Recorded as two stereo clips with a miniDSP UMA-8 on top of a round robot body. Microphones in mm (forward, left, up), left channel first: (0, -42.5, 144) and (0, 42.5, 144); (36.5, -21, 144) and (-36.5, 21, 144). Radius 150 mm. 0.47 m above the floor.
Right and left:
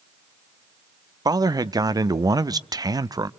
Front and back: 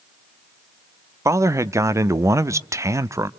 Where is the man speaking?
110° left, 1.1 m.